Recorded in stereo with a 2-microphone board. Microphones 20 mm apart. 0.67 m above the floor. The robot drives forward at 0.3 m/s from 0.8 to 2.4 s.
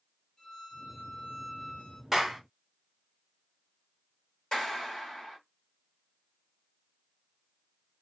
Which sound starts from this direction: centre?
A clap, at 2.1 s.